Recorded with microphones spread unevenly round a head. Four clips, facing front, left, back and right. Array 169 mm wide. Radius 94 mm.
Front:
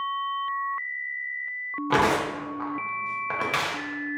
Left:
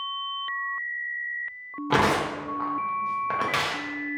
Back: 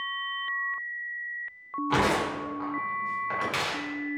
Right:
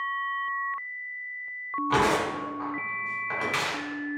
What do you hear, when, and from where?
1.9 s tearing paper: 45° left, 0.6 m